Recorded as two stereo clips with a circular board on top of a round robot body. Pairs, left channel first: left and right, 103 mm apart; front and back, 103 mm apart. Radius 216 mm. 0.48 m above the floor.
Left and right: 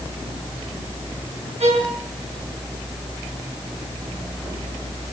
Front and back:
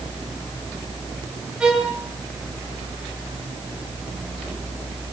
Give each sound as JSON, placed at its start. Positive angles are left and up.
{"t": 1.6, "sound": "a violin", "azimuth_deg": -100, "distance_m": 4.5}